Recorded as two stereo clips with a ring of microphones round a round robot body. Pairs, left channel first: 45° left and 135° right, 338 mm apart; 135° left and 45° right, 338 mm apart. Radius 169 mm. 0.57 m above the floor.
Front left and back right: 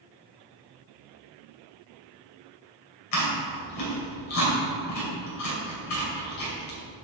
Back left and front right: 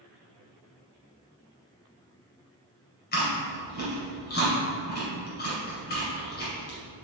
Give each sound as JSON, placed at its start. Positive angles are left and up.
{"t": 3.1, "sound": "chewing", "azimuth_deg": 70, "distance_m": 2.5}